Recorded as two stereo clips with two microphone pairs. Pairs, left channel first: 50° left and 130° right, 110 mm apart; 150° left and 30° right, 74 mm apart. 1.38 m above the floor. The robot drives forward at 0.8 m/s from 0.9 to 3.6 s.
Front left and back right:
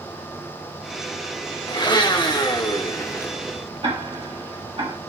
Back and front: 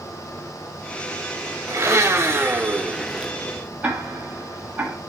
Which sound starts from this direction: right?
Ticking, at 3.8 s.